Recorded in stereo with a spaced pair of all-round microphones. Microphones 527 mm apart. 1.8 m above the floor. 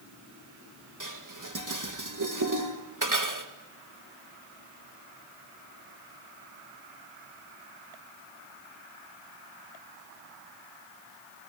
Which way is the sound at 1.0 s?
35° right (ahead or behind).